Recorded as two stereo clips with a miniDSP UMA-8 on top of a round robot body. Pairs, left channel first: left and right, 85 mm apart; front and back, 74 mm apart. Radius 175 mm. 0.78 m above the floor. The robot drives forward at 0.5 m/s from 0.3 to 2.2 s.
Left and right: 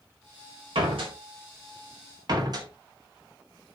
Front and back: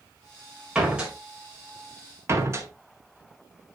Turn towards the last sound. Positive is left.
turn(degrees=-130)